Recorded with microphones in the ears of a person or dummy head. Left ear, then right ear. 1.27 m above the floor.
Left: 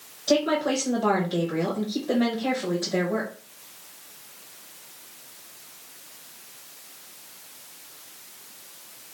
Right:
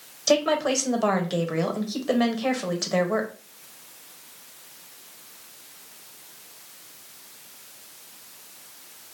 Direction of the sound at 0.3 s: 75° right (ahead or behind).